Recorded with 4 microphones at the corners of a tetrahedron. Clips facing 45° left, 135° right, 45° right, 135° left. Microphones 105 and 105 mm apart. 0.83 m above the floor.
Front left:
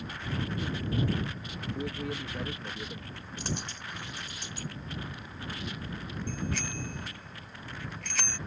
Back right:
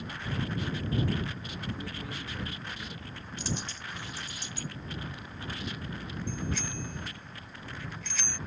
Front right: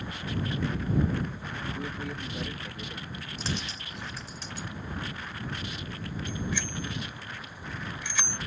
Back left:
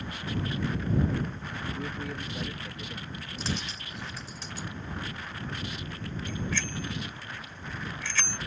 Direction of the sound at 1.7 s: 45° left.